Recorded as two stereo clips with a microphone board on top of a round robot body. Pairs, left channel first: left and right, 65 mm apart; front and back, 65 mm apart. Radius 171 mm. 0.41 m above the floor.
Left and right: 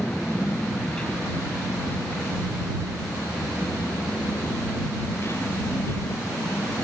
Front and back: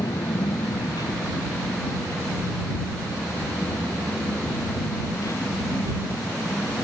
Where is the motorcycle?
10° left; by 6.8 s 45° left.